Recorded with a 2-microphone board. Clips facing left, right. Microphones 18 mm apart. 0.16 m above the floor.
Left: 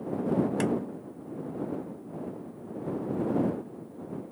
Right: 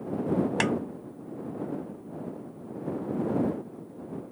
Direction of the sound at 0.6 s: 35° right (ahead or behind).